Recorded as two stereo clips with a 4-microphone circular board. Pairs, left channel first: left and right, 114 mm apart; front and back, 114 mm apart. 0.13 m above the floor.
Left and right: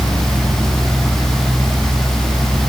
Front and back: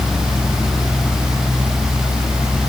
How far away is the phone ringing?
I don't hear a phone ringing.